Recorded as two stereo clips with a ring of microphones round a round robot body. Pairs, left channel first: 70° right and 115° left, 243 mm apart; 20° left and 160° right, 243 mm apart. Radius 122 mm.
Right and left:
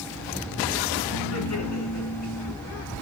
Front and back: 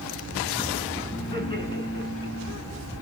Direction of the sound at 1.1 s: 50° right.